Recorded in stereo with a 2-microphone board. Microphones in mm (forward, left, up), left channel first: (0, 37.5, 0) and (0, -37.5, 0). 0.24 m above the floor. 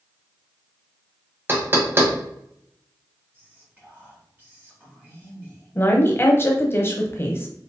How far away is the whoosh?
No whoosh in this recording.